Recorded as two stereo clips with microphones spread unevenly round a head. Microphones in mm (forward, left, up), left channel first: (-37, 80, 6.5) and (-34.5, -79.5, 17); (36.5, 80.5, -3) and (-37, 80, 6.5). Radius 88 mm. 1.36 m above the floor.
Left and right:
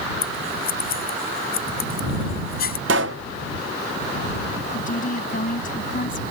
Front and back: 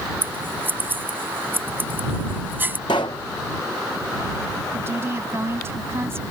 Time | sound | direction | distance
0.2 | scissors | 120° left | ?
2.9 | a pop | 60° right | ?
4.7 | a woman speaking | 130° left | ?